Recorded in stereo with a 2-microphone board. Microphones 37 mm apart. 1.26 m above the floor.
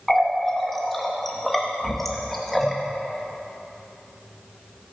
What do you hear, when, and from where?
0.1 s a running tap: 5° left (ahead or behind), 1.1 m